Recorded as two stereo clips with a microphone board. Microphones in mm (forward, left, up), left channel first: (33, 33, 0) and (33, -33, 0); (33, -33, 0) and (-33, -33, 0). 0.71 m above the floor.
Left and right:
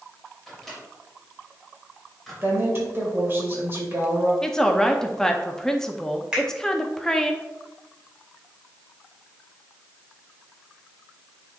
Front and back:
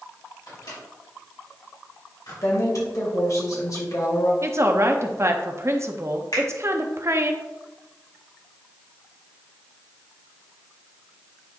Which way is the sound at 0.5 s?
5° left.